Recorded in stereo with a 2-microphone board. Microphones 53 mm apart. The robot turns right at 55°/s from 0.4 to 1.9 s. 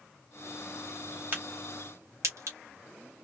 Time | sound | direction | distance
1.3 | a crack | 30° right (ahead or behind) | 2.5 m